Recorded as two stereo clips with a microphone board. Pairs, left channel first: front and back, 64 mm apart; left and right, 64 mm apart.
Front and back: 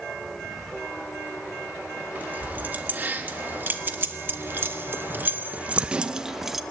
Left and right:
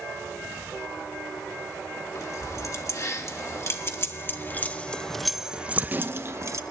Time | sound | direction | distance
2.1 | keys jangling | 120° left | 2 m